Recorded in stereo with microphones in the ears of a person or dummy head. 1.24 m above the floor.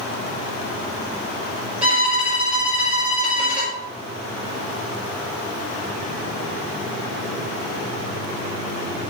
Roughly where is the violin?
Centre.